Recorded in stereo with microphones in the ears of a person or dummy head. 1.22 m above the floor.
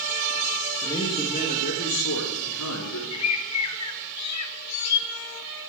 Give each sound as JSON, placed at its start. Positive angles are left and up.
{"t": 0.8, "sound": "a man speaking", "side_deg": 15, "distance_m": 1.6}
{"t": 3.1, "sound": "a bird", "side_deg": 85, "distance_m": 0.7}